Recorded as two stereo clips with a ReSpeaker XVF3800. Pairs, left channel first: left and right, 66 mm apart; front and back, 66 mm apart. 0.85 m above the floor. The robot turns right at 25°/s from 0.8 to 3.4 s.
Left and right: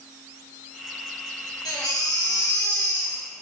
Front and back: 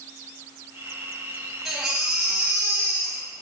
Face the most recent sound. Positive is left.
turn(degrees=140)